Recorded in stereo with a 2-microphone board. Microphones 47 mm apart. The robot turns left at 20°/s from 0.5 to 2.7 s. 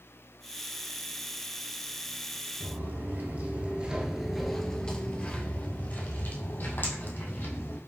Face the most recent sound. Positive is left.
turn(degrees=55)  # may be behind; listen again after turning